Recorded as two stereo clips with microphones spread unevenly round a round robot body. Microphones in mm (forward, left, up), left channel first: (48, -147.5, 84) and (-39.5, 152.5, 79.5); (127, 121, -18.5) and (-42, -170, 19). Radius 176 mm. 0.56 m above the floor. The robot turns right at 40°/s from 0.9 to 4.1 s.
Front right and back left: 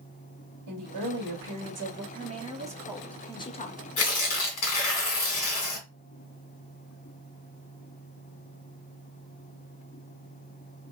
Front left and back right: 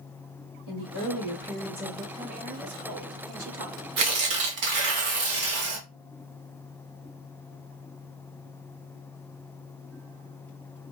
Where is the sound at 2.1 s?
160° left, 0.9 m; by 3.9 s 130° right, 0.9 m.